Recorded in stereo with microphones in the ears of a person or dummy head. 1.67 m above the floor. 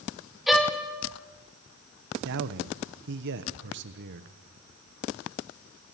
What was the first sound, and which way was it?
A violin, centre (ahead or behind).